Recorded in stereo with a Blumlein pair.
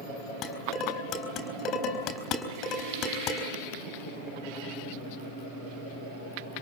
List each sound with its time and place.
0.4 s dishes clattering: 35° left, 4 m